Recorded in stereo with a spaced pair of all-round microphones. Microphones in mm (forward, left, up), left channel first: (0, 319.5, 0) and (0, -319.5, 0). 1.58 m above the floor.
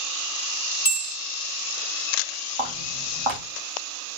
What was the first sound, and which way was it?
A bell, 55° left (ahead or behind).